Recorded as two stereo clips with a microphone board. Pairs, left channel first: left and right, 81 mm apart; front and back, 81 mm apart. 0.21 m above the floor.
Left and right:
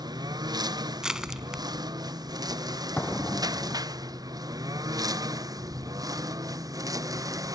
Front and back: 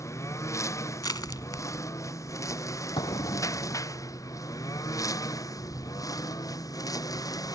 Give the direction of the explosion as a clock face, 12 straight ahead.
11 o'clock.